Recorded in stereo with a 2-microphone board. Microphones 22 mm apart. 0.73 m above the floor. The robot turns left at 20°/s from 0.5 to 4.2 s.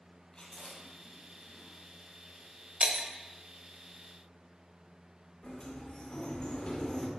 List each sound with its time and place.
0.3 s chewing: 35° left (ahead or behind), 4 m; by 1.7 s 60° left (ahead or behind), 4 m
2.8 s breaking glass: 50° right (ahead or behind), 1.7 m; by 3.1 s 60° right (ahead or behind), 1.7 m
5.4 s a sliding door: 40° left (ahead or behind), 2 m